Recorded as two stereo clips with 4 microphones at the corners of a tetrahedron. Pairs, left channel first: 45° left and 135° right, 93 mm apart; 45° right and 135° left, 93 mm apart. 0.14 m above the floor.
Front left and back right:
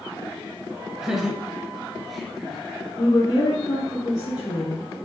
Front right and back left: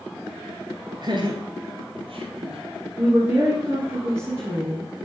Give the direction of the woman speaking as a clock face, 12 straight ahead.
9 o'clock.